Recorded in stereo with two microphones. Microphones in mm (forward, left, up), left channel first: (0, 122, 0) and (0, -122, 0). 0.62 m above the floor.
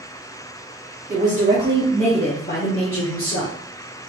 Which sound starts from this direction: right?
A woman speaking, at 1.1 s.